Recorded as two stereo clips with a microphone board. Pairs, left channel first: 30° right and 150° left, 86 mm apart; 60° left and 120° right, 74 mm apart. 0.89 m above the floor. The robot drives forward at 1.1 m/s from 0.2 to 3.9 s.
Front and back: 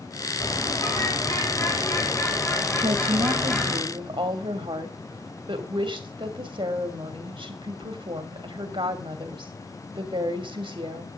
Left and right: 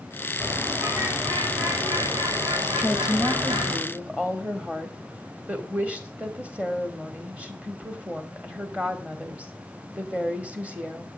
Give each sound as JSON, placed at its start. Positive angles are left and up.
{"t": 0.4, "sound": "a bird", "azimuth_deg": -60, "distance_m": 5.0}
{"t": 2.8, "sound": "a woman speaking", "azimuth_deg": 145, "distance_m": 0.8}